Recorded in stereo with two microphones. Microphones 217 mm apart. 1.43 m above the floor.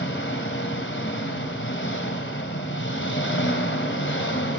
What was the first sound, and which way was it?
An engine running, 65° left (ahead or behind).